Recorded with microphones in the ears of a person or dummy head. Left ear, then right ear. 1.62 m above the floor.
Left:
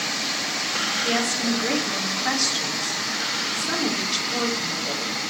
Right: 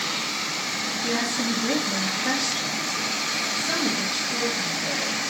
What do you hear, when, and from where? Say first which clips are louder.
1.0 s a woman speaking: left 2 dB; 10° left (ahead or behind), 2 m